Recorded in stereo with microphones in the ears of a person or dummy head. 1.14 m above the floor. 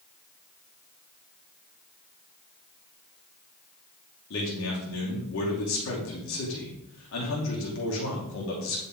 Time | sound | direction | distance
4.3 | a man speaking | 70° left (ahead or behind) | 2.5 m